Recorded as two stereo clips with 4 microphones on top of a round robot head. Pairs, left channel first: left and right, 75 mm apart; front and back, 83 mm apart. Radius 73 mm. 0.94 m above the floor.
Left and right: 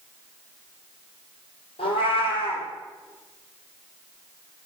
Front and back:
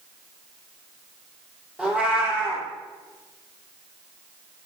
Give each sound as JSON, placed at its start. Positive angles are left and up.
{"t": 1.8, "sound": "a cat meowing", "azimuth_deg": 100, "distance_m": 3.5}